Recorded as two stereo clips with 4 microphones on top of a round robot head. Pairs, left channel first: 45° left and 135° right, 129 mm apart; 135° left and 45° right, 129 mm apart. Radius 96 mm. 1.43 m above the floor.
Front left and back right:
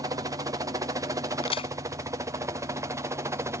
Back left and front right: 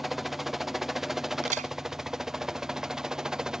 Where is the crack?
10° right.